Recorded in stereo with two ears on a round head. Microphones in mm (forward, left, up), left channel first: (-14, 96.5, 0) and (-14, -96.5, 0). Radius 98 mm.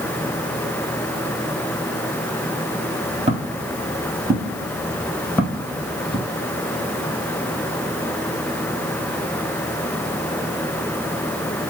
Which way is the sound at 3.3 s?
30° right (ahead or behind).